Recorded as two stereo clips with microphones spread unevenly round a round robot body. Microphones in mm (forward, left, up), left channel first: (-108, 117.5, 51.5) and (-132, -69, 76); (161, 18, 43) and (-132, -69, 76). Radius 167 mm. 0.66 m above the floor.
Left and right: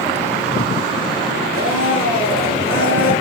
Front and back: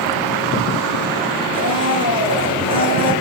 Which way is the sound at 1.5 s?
90° right.